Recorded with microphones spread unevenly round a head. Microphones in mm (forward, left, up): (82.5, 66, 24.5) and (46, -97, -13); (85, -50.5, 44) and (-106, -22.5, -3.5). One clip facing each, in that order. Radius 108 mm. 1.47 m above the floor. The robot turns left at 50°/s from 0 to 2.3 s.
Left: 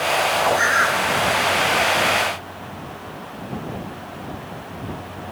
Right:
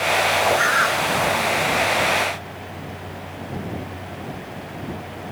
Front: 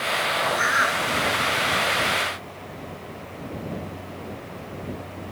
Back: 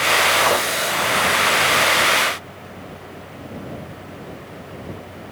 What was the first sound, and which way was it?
A bird, 15° left.